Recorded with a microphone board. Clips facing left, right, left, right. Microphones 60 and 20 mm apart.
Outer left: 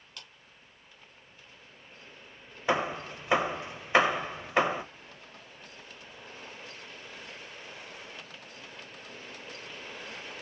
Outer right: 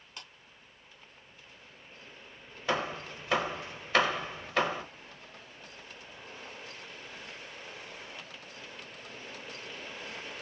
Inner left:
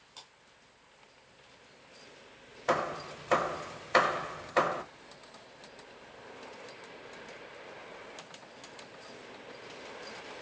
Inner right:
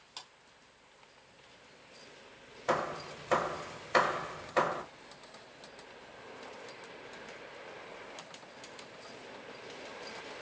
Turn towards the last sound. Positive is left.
turn(degrees=20)  # may be behind; listen again after turning